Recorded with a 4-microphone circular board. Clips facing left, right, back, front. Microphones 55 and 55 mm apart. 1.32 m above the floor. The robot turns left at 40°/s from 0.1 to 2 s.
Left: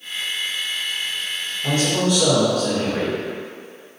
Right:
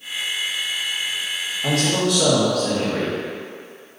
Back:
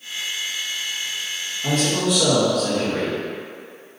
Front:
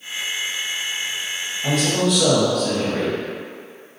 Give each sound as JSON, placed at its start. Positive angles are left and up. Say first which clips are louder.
{"t": 1.6, "sound": "a man speaking", "louder": "even, front 1 dB", "azimuth_deg": -80, "distance_m": 1.5}